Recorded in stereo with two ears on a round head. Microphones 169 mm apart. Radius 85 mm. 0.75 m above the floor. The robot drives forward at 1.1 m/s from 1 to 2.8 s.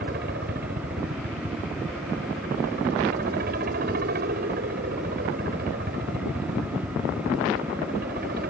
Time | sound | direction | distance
0.0 | a helicopter | 55° right (ahead or behind) | ?